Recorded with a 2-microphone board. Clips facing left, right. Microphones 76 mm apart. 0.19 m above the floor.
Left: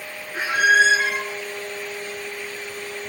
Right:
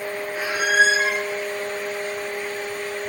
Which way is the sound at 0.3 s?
70° left (ahead or behind).